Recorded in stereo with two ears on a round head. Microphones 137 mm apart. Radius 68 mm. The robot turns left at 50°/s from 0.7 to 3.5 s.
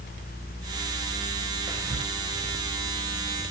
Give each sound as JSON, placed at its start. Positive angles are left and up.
{"t": 1.7, "sound": "whispering", "side_deg": -25, "distance_m": 0.8}